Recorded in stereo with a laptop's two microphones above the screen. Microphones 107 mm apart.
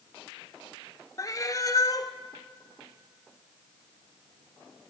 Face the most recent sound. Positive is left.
turn(degrees=35)  # may be behind; listen again after turning